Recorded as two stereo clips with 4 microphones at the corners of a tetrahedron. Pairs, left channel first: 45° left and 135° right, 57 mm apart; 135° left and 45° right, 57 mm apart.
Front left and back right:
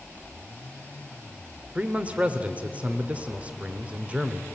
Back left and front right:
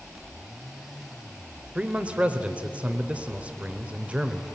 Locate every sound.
1.8 s a man speaking: 90° right, 1.0 m